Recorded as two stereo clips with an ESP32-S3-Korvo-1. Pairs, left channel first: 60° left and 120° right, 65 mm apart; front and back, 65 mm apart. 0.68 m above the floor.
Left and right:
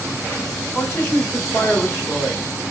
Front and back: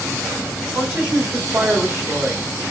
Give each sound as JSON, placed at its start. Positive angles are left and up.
{"t": 0.8, "sound": "a woman speaking", "azimuth_deg": 115, "distance_m": 2.0}